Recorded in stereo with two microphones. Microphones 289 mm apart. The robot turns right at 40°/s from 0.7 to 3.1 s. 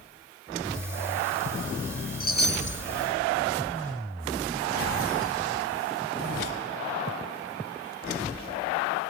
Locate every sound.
2.2 s a chime: 30° left (ahead or behind), 0.5 m; by 2.8 s 45° left (ahead or behind), 0.5 m